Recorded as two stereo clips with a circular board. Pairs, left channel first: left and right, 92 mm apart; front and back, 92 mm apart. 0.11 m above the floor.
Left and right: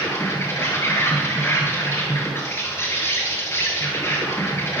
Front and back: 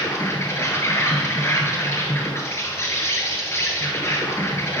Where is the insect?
40° left, 1.7 m.